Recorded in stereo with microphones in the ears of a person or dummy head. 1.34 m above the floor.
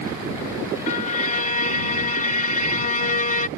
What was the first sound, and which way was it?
A violin, 50° left (ahead or behind).